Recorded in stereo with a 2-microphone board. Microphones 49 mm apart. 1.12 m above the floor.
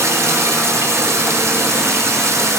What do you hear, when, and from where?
0.0 s running water: 80° right, 3 m